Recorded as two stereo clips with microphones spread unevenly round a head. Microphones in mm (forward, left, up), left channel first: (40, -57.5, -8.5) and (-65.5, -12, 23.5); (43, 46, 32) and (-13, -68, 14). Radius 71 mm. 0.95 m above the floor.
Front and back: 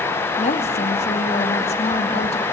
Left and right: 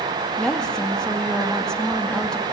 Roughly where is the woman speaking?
Ahead.